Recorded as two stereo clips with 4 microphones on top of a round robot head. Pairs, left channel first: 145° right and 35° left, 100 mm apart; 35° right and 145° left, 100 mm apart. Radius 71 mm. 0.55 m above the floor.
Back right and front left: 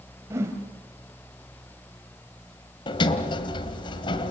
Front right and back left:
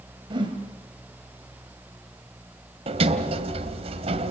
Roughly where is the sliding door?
Behind.